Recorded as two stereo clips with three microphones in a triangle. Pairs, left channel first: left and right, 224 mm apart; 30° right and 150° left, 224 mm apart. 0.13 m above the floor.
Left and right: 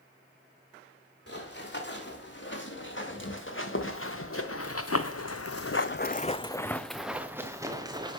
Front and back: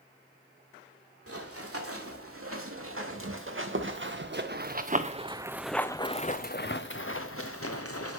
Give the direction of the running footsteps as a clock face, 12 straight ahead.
8 o'clock.